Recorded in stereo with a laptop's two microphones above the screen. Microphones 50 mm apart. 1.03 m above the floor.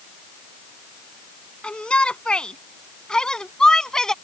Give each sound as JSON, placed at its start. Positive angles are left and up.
{"t": 1.6, "sound": "a shout", "side_deg": 20}